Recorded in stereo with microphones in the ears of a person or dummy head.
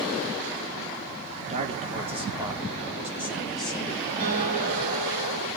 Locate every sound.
1.4 s a man speaking: 40° right (ahead or behind), 4.5 m; by 4.0 s 5° left (ahead or behind), 4.5 m
4.2 s a guitar: 45° right (ahead or behind), 7.5 m